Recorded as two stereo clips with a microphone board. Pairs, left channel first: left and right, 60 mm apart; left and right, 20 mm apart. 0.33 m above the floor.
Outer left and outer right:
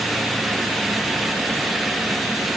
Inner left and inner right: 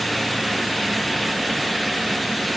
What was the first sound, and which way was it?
Only background noise.